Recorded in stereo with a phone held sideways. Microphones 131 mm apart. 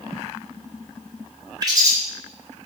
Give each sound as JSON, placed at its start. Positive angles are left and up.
{"t": 1.6, "sound": "a bird", "side_deg": -30, "distance_m": 0.8}